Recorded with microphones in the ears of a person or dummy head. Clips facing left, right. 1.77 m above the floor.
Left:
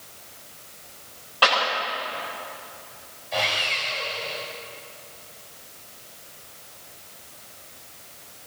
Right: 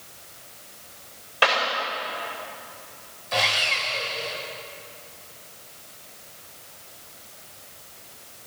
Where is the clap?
25° right (ahead or behind), 7.5 m.